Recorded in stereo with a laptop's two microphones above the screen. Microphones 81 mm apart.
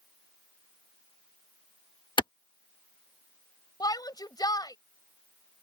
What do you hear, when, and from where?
2.2 s a clap: 75° left (ahead or behind)
3.8 s a shout: 50° left (ahead or behind)